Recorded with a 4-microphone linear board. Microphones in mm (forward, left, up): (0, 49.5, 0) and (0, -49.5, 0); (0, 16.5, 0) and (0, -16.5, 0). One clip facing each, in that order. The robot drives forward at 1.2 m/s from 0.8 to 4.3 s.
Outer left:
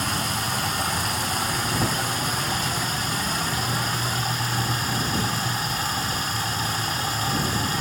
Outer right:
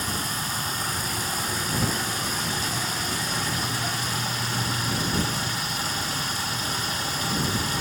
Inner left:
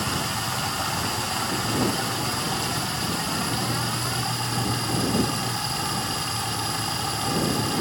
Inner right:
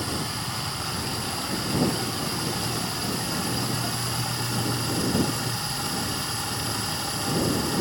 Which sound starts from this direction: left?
Running water, at 0.0 s.